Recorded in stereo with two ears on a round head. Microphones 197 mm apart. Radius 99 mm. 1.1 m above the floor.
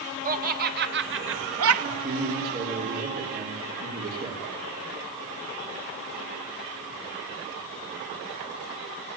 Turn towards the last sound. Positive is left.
turn(degrees=-40)  # may be behind; listen again after turning